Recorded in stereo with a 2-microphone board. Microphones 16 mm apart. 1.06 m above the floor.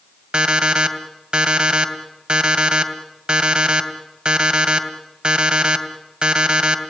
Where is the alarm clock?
75° right (ahead or behind), 2.5 m.